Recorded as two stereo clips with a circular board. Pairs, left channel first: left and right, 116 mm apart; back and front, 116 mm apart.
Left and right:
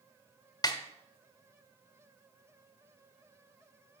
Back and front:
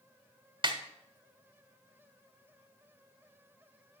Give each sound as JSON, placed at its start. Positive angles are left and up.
{"t": 0.6, "sound": "a snare drum", "azimuth_deg": 40, "distance_m": 1.2}